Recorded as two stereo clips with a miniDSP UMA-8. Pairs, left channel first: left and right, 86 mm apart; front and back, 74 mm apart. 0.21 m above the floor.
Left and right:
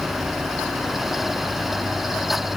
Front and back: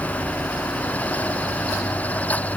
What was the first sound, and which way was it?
Only background noise.